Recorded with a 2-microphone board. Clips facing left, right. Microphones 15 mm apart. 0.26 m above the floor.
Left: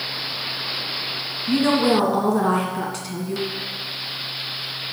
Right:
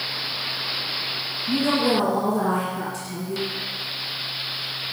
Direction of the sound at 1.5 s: 35° left (ahead or behind).